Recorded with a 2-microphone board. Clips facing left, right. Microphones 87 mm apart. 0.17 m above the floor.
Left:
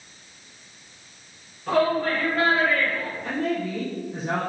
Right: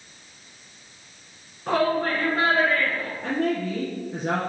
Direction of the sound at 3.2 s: 50° right (ahead or behind).